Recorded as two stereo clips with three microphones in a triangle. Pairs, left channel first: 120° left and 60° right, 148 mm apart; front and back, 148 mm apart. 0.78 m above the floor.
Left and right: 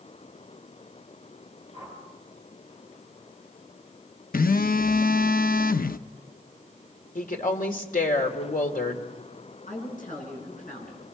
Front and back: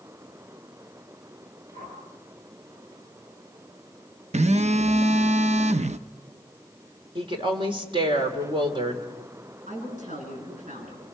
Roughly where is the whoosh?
Behind.